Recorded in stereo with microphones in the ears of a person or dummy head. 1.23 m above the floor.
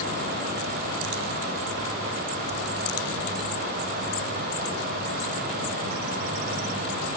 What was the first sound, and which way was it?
Only background noise.